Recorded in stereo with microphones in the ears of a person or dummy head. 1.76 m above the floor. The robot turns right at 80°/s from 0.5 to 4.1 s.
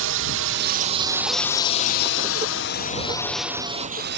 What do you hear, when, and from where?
0.0 s a drone: 65° right (ahead or behind); by 4.2 s 55° right (ahead or behind)